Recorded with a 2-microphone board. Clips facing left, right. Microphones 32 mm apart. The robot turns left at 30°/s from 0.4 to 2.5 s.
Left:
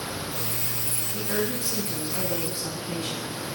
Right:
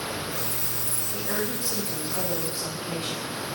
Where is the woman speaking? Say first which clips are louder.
Left 2 dB; 25° right (ahead or behind), 1.3 m; by 3.4 s 30° right (ahead or behind), 1.3 m.